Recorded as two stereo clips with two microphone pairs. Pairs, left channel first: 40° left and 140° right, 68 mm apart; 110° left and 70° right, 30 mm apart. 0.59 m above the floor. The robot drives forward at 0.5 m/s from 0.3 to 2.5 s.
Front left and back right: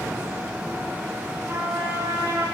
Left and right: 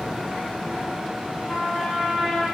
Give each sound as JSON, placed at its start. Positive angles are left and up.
{"t": 1.5, "sound": "a trumpet", "azimuth_deg": 170, "distance_m": 6.0}